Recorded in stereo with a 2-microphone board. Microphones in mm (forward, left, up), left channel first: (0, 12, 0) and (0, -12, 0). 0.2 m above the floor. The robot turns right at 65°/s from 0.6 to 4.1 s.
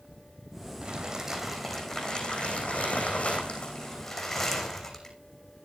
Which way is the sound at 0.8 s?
45° right.